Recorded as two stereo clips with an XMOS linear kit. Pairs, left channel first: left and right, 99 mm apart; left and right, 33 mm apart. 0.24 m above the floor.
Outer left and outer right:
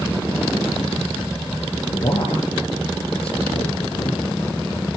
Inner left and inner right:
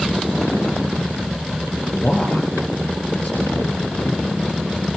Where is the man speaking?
70° left (ahead or behind), 4.5 m.